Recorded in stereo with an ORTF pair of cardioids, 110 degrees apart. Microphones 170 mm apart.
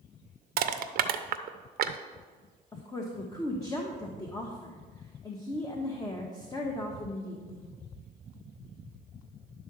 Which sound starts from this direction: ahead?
A woman speaking, at 2.7 s.